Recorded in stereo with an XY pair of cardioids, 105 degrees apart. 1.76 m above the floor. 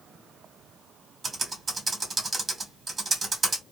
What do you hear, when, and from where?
1.2 s typing on a keyboard: 35° right, 1.8 m